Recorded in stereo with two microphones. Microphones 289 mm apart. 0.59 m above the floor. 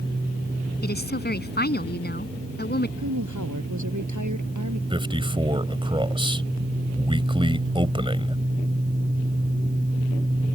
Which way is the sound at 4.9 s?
15° right (ahead or behind).